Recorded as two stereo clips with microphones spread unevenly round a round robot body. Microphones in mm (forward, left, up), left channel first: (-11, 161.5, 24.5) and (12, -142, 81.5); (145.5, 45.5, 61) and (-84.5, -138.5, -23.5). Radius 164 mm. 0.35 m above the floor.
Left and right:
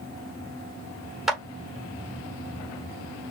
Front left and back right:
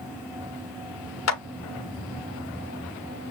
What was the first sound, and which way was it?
A clap, 15° left.